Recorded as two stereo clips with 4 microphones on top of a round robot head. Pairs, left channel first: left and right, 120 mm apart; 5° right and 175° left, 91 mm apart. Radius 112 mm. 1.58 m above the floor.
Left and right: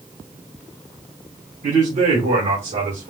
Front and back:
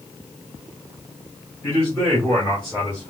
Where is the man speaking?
80° right, 3 m; by 3.1 s 85° right, 2 m.